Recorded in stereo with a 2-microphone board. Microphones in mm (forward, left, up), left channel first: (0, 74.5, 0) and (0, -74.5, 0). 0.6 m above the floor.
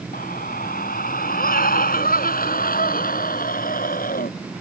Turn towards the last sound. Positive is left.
turn(degrees=75)  # may be behind; listen again after turning